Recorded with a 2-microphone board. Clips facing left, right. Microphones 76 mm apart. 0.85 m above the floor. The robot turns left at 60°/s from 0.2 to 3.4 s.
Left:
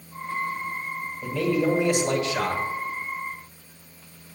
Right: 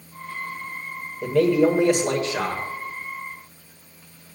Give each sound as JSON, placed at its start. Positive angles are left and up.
{"t": 1.2, "sound": "a man speaking", "azimuth_deg": -85, "distance_m": 5.5}